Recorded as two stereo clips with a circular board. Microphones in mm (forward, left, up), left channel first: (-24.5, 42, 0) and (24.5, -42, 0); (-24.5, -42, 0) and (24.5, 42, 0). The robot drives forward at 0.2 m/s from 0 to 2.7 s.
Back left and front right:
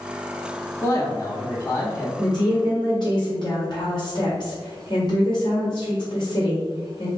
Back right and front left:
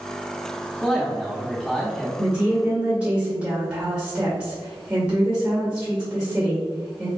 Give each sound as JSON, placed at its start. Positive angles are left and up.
{"t": 0.8, "sound": "a man speaking", "azimuth_deg": 145, "distance_m": 0.9}
{"t": 2.2, "sound": "a woman speaking", "azimuth_deg": 120, "distance_m": 1.8}